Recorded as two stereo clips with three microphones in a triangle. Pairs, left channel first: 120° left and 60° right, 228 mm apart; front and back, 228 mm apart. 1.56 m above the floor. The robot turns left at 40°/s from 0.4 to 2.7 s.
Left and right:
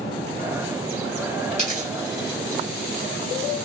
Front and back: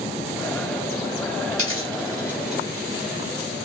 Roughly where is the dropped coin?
Left.